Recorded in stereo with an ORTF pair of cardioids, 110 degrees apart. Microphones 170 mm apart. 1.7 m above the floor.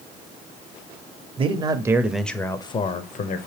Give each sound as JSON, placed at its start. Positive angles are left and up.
{"t": 1.4, "sound": "a man speaking", "azimuth_deg": -35, "distance_m": 0.7}